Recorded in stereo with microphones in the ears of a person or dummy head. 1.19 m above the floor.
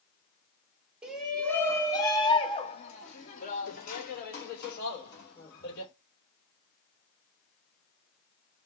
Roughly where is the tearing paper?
I don't hear tearing paper.